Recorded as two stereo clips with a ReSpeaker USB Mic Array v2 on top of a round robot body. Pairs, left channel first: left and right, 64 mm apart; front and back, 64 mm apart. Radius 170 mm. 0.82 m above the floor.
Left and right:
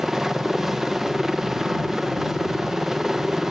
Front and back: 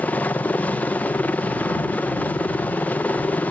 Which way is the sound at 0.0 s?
10° right.